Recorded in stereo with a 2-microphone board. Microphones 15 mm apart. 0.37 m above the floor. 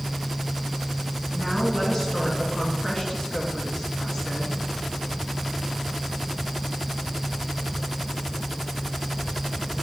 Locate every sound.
1.3 s a woman speaking: 35° left (ahead or behind), 3 m